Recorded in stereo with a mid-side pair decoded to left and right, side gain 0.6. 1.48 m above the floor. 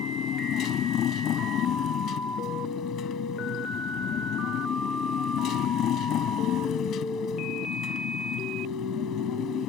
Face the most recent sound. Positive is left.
turn(degrees=55)